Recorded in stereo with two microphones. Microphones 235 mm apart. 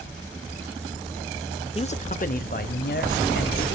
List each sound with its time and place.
1.8 s a man speaking: 25° left (ahead or behind), 0.9 m; by 3.7 s 50° left (ahead or behind), 2 m